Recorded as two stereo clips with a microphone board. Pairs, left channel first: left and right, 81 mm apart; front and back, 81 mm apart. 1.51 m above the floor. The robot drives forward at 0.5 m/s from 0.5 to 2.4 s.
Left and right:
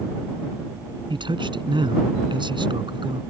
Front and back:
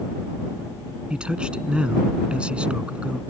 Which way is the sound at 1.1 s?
100° right.